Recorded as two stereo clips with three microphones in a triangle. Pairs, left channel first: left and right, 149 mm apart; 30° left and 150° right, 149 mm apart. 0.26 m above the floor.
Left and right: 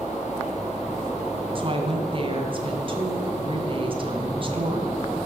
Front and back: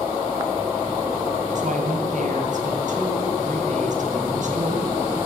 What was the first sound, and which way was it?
A woman speaking, 135° right.